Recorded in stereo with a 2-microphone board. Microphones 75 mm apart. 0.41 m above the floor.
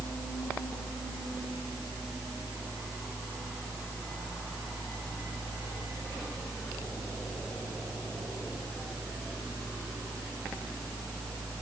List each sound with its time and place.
Only background noise.